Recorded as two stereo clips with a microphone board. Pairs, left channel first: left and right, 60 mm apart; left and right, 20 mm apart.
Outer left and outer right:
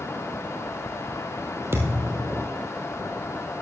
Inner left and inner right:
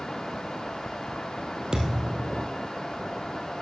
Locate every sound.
1.7 s a thud: 45° right (ahead or behind), 3 m